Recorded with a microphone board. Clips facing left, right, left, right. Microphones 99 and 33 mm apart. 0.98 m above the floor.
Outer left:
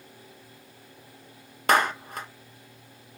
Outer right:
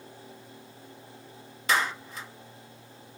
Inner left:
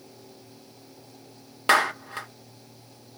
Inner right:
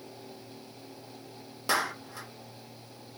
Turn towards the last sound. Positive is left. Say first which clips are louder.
# outer left 5 dB, inner left 8 dB
turn(degrees=55)  # may be behind; listen again after turning